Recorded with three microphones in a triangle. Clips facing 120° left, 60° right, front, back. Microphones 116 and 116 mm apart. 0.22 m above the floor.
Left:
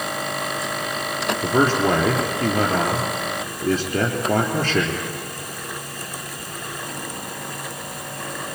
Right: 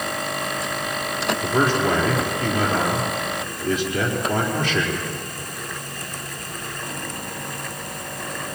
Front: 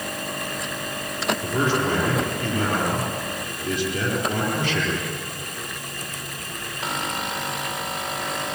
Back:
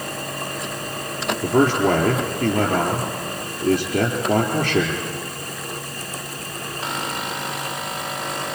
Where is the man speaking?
170° left, 4 m.